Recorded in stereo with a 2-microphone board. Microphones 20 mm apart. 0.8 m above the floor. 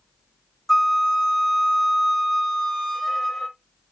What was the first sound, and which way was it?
A flute, 10° left (ahead or behind).